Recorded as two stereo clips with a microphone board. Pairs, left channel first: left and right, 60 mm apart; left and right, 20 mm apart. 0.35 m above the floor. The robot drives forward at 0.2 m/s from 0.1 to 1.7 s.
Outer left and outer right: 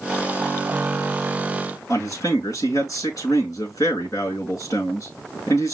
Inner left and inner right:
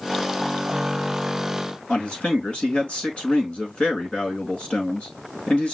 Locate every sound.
1.9 s a man speaking: 70° left (ahead or behind), 4.5 m